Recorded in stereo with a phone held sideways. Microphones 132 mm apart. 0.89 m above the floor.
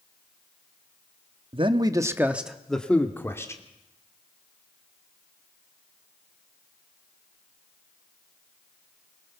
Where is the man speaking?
45° right (ahead or behind), 1.2 m; by 3.6 s 25° left (ahead or behind), 2 m.